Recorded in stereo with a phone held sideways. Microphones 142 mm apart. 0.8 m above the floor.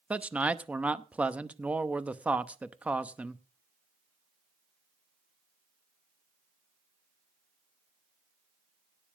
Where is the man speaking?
10° right (ahead or behind), 0.9 m.